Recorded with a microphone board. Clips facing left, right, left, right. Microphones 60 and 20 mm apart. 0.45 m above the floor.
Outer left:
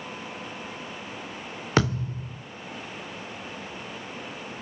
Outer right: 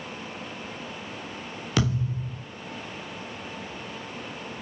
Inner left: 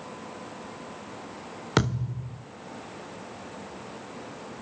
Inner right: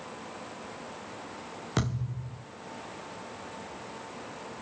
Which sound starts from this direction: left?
A thud, at 1.8 s.